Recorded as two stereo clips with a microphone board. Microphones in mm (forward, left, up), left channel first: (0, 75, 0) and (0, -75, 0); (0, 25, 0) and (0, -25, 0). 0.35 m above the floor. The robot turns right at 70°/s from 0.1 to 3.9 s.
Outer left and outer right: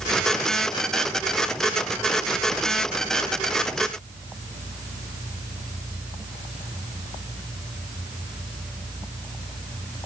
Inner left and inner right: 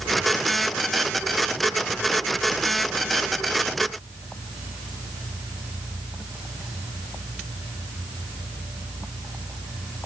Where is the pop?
No pop in this recording.